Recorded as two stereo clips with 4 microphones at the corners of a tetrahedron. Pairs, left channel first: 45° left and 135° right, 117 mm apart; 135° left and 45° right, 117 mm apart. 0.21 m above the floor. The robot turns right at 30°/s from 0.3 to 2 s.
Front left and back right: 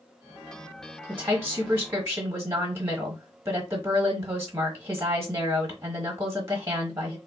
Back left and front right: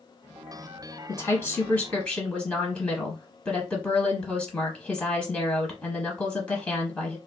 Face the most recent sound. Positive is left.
turn(degrees=-165)